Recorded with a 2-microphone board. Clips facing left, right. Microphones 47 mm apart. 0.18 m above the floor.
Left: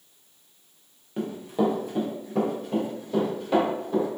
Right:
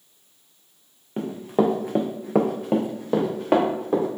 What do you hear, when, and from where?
1.2 s running footsteps: 25° right (ahead or behind), 0.8 m; by 4.1 s 50° right (ahead or behind), 1.4 m